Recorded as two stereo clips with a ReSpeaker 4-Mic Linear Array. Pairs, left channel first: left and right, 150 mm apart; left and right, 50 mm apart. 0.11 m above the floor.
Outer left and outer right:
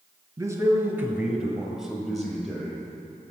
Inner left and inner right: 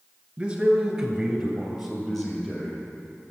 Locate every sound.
0.4 s a man speaking: 25° right (ahead or behind), 1.2 m; by 2.8 s 5° left (ahead or behind), 2.5 m